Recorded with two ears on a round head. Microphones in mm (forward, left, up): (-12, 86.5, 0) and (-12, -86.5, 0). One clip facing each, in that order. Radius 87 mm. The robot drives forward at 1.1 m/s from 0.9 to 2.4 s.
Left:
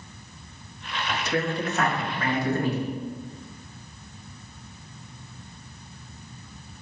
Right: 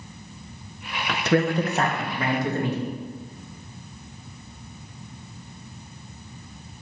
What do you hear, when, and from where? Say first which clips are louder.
1.1 s a man speaking: right 6 dB; 60° right (ahead or behind), 0.6 m; by 2.9 s 20° right (ahead or behind), 1.7 m